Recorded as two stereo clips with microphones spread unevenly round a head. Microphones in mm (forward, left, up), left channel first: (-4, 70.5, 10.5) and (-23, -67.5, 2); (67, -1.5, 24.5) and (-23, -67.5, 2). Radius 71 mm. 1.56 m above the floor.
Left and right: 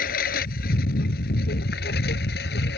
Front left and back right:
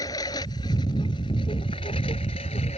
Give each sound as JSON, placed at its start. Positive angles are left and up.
{"t": 0.0, "sound": "a lawn mower", "azimuth_deg": 100}